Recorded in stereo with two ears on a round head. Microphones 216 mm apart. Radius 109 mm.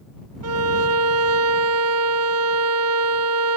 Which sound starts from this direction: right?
A violin, at 0.4 s.